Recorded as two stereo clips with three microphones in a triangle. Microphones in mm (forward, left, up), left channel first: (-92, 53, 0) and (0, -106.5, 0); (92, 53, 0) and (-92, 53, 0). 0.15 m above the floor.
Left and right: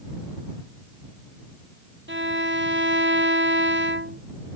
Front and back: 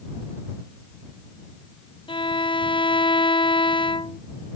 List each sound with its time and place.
2.1 s a violin: 65° right